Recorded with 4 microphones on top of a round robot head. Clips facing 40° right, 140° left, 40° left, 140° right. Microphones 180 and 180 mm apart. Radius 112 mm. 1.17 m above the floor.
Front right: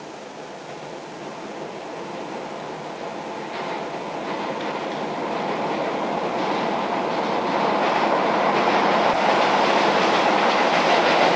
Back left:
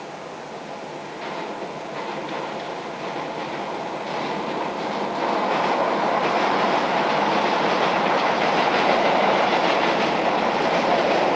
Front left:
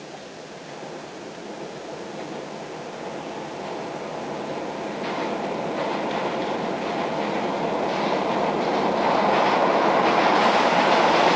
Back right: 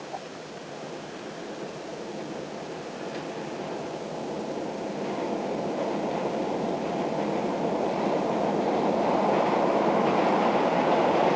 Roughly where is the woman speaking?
No woman speaking in this recording.